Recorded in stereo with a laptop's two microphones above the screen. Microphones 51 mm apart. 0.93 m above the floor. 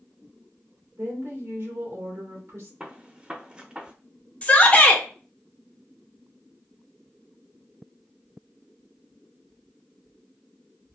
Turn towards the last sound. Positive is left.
turn(degrees=25)  # may be behind; listen again after turning